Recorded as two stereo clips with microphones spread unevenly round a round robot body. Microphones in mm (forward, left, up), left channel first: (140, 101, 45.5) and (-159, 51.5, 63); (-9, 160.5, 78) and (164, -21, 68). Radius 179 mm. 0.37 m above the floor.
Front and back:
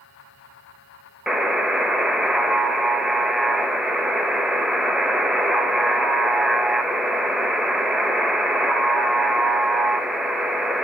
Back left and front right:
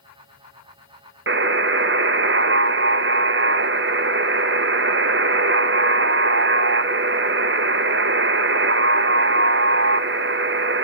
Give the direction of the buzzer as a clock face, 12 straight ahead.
3 o'clock.